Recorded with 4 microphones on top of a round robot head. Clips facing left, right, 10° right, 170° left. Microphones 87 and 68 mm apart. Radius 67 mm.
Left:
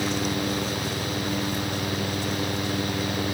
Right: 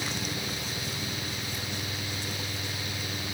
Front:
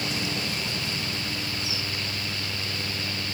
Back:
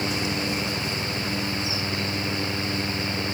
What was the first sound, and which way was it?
Only background noise.